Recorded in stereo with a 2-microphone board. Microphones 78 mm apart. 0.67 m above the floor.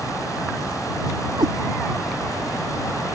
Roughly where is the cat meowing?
Right.